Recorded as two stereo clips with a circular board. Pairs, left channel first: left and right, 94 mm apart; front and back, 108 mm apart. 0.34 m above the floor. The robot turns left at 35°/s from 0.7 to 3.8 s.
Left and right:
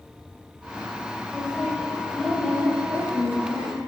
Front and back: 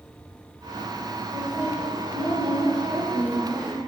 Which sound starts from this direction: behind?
A woman speaking, at 1.3 s.